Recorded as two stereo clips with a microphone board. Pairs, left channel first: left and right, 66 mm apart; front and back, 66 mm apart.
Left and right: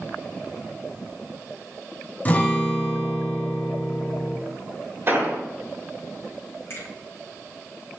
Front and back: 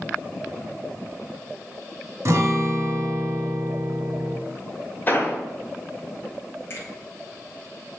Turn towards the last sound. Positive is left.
turn(degrees=45)